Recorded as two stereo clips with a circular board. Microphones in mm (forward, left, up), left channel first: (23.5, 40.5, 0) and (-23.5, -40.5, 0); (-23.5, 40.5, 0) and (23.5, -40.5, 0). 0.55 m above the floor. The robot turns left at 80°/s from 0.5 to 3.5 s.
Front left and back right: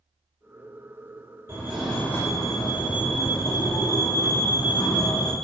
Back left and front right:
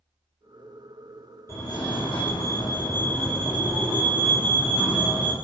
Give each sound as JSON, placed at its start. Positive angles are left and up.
{"t": 1.5, "sound": "a fire alarm", "azimuth_deg": 175, "distance_m": 3.5}